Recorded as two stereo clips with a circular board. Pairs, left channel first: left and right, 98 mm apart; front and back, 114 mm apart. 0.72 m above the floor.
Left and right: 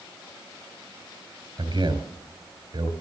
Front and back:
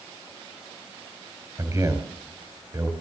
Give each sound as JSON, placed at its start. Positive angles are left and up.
{"t": 1.6, "sound": "a man speaking", "azimuth_deg": -115, "distance_m": 4.0}